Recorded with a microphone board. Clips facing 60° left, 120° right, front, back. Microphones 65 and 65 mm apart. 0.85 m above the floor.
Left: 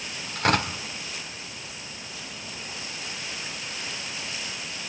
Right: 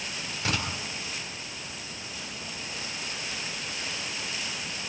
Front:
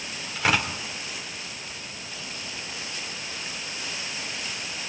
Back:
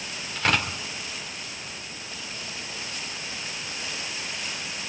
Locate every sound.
0.3 s tearing paper: 85° left, 3 m